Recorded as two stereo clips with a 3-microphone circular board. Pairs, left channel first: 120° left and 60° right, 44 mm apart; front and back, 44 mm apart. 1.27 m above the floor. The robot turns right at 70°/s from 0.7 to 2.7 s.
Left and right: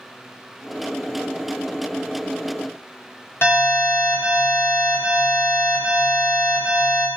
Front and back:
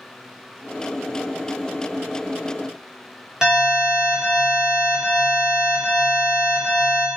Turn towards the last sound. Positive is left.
turn(degrees=105)